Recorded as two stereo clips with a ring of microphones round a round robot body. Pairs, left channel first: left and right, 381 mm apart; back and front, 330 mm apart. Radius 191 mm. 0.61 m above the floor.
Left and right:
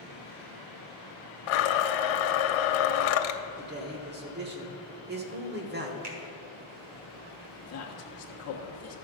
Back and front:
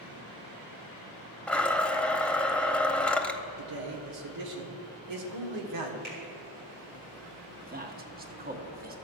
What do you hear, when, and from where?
1.5 s a blender: 95° left, 0.7 m
3.6 s a man speaking: 30° right, 1.5 m
6.0 s a finger snap: 70° right, 1.9 m
7.6 s a man speaking: 55° left, 1.2 m